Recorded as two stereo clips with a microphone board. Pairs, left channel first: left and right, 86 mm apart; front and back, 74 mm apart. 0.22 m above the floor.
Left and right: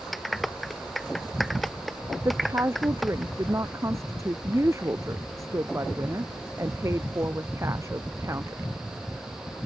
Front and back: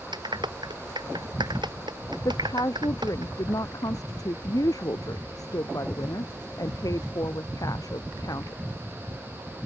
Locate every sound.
0.1 s a clap: straight behind
2.2 s a woman speaking: 35° right